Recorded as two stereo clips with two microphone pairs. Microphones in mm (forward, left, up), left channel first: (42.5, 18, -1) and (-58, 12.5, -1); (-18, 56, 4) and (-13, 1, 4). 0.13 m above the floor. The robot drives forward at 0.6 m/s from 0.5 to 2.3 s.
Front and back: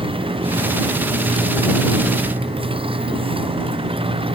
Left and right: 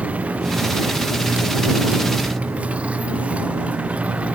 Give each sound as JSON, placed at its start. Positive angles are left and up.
{"t": 0.0, "sound": "a motorcycle", "azimuth_deg": -150}